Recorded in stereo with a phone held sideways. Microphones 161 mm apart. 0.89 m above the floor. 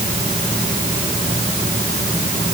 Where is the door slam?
No door slam in this recording.